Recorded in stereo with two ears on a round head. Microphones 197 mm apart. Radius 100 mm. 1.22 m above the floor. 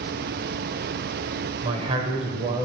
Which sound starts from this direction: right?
A man speaking, at 1.6 s.